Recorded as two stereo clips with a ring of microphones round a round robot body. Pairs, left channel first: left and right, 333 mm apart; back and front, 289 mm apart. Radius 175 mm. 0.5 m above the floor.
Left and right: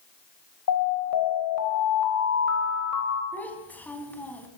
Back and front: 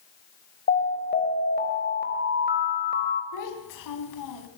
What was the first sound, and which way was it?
An alarm, 125° left.